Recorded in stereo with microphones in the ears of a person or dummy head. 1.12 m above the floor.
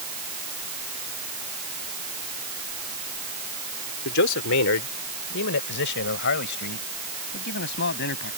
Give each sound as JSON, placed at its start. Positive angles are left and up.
{"t": 4.0, "sound": "a man speaking", "side_deg": 70}